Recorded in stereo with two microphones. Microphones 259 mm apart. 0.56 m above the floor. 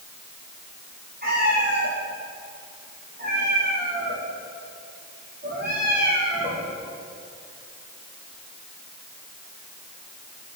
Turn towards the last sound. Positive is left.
turn(degrees=-35)  # may be behind; listen again after turning